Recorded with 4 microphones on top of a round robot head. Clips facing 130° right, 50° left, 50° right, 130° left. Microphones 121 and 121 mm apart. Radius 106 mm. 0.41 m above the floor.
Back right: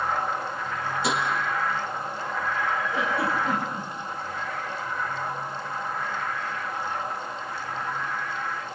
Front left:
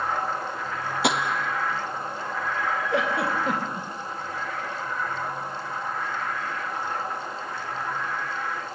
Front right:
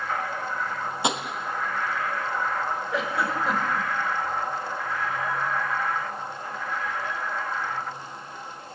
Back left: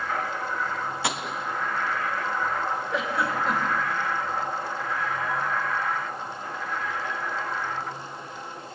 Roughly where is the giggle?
Ahead left.